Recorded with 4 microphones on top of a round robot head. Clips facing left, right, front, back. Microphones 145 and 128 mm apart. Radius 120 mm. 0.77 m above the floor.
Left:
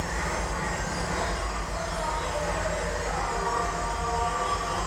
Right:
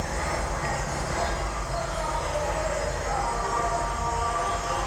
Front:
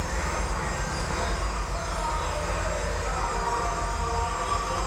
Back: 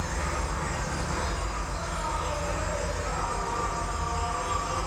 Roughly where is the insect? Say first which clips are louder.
Right 2 dB, front 2 dB; behind.